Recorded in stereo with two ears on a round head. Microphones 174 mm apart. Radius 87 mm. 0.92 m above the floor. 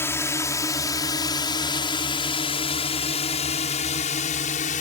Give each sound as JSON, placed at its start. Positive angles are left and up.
{"t": 0.0, "sound": "a drone", "side_deg": 15}